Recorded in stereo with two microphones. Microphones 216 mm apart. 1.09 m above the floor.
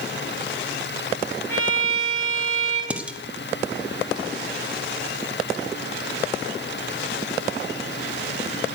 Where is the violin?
10° left (ahead or behind), 10 m.